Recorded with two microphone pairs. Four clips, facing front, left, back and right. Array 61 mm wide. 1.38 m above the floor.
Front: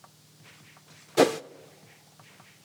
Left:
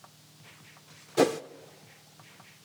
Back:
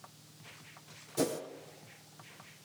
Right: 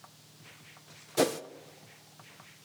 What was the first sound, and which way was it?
A whoosh, 5° right.